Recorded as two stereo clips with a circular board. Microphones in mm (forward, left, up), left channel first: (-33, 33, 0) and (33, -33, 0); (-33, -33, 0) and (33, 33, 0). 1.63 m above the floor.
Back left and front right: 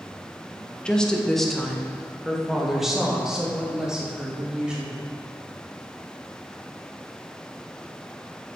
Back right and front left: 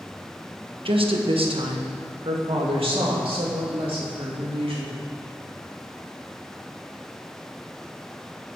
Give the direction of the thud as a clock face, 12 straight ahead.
No thud in this recording.